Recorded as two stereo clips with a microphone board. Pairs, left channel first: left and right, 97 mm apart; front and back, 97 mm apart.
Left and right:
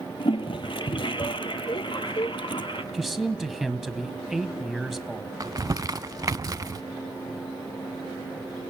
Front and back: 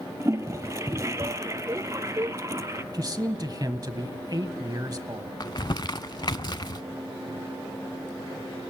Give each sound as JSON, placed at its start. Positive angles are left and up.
{"t": 0.2, "sound": "a toilet flushing", "azimuth_deg": 120, "distance_m": 1.0}
{"t": 2.9, "sound": "a man speaking", "azimuth_deg": -175, "distance_m": 1.4}
{"t": 5.4, "sound": "crumpling", "azimuth_deg": -40, "distance_m": 0.6}